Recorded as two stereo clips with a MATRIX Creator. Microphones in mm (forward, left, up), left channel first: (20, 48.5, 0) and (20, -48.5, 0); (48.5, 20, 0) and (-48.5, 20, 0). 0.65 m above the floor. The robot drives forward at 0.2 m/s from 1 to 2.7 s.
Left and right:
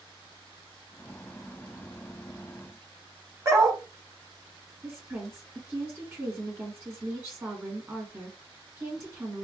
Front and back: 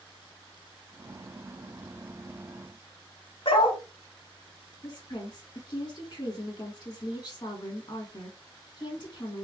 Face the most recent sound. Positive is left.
turn(degrees=-30)